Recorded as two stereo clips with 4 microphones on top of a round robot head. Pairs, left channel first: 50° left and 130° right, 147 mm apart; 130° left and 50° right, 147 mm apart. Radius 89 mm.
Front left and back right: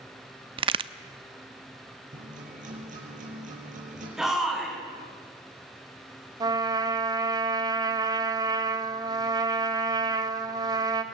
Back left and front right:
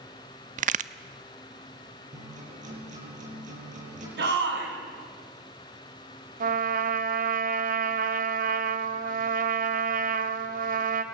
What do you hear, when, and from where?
0.6 s a crack: 80° right, 0.8 m
2.1 s a guitar: 90° right, 8.5 m
4.2 s a shout: 45° right, 7 m
6.4 s a trumpet: 70° right, 1.9 m